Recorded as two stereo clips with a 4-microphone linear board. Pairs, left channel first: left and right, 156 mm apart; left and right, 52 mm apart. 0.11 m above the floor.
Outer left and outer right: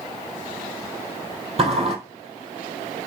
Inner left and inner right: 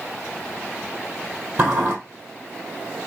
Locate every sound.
1.6 s a sliding door: 40° right (ahead or behind), 2 m